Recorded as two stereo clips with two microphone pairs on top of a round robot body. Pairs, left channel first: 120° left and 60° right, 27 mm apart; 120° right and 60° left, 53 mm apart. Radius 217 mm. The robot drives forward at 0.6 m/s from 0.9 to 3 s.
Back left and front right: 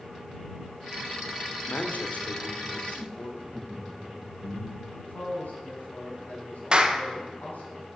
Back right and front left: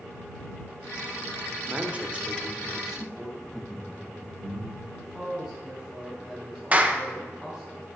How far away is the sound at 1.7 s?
About 1.4 m.